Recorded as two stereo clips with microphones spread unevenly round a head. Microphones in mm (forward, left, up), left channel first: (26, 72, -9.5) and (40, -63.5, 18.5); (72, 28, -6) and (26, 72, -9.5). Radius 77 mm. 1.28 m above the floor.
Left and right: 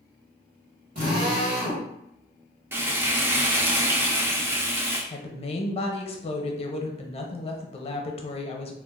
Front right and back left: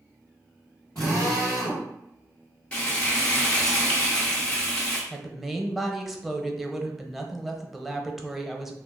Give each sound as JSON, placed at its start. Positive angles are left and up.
{"t": 0.9, "sound": "a drill", "azimuth_deg": -130, "distance_m": 1.6}
{"t": 2.7, "sound": "frying", "azimuth_deg": -80, "distance_m": 0.5}
{"t": 5.1, "sound": "a woman speaking", "azimuth_deg": 50, "distance_m": 0.7}